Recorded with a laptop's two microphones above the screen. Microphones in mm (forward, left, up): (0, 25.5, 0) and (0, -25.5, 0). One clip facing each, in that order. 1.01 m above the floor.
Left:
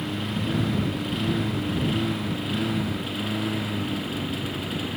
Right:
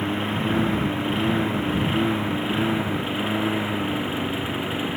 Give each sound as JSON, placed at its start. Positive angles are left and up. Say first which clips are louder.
{"t": 0.0, "sound": "a lawn mower", "louder": "right 4 dB", "side_deg": -25}